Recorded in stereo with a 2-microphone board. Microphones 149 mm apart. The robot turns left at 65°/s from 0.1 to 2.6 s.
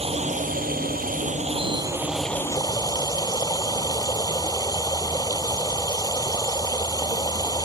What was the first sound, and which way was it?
Running water, 45° right.